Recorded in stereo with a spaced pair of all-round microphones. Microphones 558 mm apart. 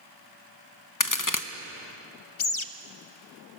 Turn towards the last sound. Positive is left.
turn(degrees=65)  # may be behind; listen again after turning